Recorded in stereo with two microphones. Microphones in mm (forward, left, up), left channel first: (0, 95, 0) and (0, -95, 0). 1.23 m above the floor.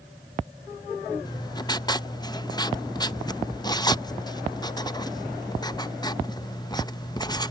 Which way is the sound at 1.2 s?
20° left (ahead or behind).